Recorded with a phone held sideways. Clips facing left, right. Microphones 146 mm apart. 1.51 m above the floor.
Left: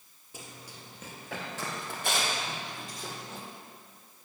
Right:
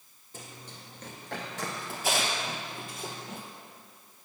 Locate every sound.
0.3 s running footsteps: 10° left (ahead or behind), 1.7 m; by 3.4 s 10° right (ahead or behind), 2.5 m